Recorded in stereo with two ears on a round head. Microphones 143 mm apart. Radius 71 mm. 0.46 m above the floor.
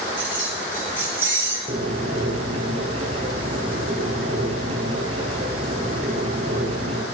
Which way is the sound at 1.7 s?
35° right (ahead or behind).